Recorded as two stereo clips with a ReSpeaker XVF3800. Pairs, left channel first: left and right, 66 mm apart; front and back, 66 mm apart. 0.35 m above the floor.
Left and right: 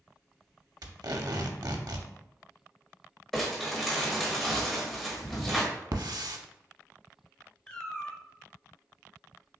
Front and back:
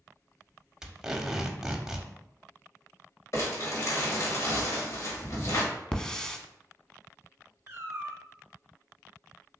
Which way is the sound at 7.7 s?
155° left.